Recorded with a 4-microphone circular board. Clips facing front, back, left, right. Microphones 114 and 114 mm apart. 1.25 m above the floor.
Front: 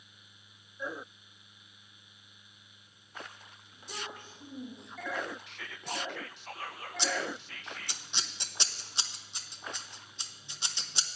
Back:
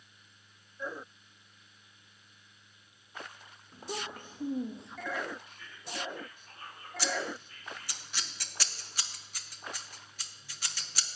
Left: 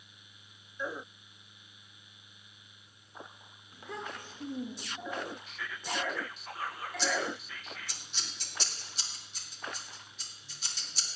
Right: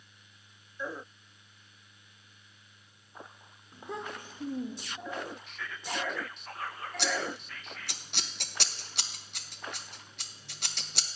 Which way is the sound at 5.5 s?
Straight ahead.